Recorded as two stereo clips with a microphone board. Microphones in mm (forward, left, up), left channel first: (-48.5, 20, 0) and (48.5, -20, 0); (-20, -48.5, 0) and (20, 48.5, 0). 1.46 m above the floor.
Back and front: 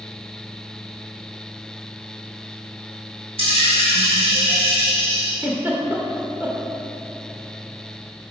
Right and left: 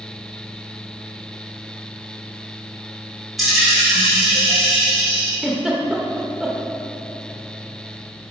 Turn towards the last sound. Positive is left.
turn(degrees=-25)